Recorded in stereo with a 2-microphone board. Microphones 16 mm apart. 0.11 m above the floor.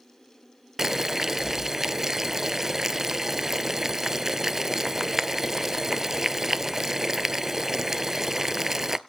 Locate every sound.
0.8 s boiling: 25° right (ahead or behind), 0.6 m